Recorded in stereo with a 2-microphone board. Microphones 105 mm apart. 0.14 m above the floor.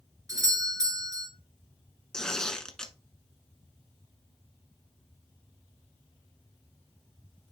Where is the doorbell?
35° right (ahead or behind), 3 m.